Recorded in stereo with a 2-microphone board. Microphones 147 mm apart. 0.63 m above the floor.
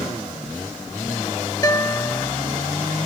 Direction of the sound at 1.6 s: 25° left (ahead or behind).